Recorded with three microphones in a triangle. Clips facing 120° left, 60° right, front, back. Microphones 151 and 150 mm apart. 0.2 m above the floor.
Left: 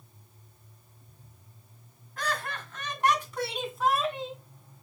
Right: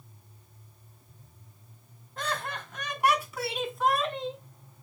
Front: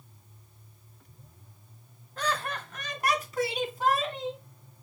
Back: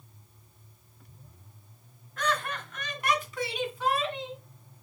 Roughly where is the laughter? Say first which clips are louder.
Even, back 1 dB; ahead.